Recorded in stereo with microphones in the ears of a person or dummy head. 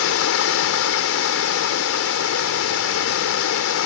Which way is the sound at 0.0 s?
70° left (ahead or behind).